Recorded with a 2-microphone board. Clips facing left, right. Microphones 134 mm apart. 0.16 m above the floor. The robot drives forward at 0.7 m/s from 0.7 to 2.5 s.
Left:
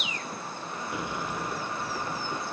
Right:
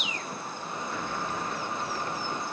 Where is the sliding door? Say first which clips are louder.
Left 1 dB; 15° left (ahead or behind); by 2.5 s 10° left (ahead or behind).